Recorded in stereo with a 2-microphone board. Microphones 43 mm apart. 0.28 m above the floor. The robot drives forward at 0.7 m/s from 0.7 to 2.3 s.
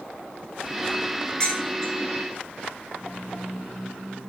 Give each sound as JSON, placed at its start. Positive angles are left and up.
{"t": 1.4, "sound": "dishes clattering", "side_deg": 20, "distance_m": 2.5}